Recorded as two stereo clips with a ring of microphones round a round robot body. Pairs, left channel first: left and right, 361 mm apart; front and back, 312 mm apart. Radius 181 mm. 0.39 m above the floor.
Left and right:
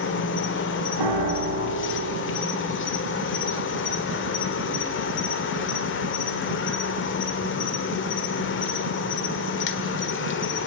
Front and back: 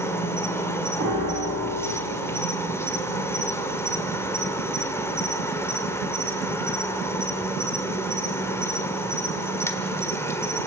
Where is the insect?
75° left, 1.8 m.